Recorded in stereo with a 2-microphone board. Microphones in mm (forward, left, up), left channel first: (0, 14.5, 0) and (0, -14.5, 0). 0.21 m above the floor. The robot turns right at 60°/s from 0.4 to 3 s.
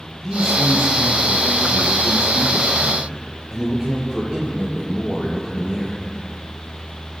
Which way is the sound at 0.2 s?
175° left.